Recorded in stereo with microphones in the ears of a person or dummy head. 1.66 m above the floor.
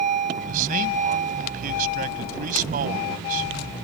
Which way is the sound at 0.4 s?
45° right (ahead or behind).